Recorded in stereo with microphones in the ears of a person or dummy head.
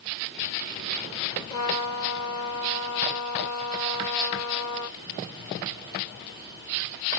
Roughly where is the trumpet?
Left.